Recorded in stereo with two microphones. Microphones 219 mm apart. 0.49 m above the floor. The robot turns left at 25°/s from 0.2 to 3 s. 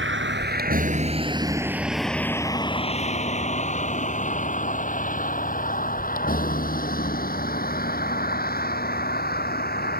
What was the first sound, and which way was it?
A vehicle, 60° right (ahead or behind).